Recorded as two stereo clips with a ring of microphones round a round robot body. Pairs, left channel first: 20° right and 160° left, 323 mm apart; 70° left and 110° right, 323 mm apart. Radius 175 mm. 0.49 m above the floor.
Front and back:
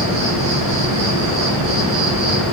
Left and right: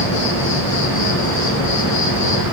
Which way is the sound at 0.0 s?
105° left.